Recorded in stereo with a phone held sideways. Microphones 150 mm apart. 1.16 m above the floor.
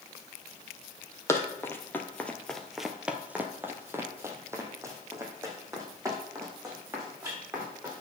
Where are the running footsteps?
15° left (ahead or behind), 1.7 m; by 8.0 s 20° right (ahead or behind), 5 m.